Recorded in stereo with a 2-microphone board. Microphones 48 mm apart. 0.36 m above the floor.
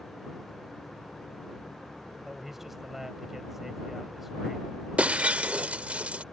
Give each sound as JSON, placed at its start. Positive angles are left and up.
{"t": 2.2, "sound": "a man speaking", "side_deg": -5}
{"t": 5.0, "sound": "breaking glass", "side_deg": -25}